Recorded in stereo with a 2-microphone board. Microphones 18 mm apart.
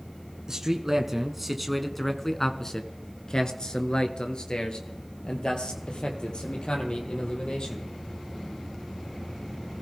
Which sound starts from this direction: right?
A man speaking, at 0.5 s.